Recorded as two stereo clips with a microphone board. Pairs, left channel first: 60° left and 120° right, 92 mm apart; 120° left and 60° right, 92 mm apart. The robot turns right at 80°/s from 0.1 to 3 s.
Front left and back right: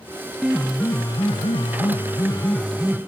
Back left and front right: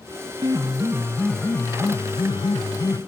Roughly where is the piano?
Ahead right.